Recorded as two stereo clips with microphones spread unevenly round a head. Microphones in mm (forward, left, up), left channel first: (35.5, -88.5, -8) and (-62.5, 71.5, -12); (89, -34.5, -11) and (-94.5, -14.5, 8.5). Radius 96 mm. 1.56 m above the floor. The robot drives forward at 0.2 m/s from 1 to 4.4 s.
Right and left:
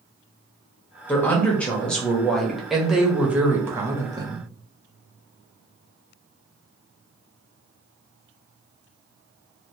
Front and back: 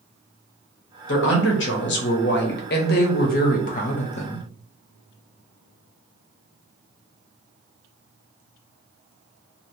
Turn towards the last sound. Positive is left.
turn(degrees=55)